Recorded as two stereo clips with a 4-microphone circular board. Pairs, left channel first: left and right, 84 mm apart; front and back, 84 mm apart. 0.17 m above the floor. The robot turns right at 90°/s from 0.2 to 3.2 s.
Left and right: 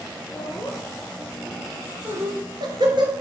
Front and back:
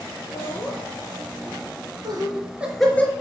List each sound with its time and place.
0.3 s laughter: 50° left, 3 m; by 3.1 s 60° right, 3 m